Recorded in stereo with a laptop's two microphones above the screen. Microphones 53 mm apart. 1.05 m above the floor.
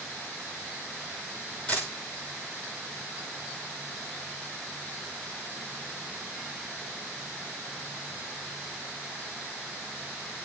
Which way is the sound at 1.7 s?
25° left (ahead or behind).